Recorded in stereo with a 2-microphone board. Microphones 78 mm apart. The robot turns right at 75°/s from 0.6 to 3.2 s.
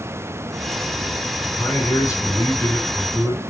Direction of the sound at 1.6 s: 10° left.